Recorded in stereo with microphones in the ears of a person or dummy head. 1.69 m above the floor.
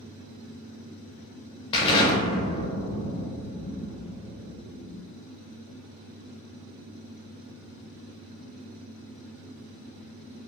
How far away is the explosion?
About 0.5 m.